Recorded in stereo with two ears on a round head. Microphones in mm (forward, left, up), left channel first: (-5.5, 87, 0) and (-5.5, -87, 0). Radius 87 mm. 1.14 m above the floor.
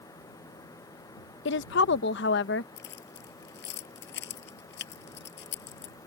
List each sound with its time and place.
1.4 s a woman speaking: 60° left (ahead or behind)
2.8 s keys jangling: 60° left (ahead or behind)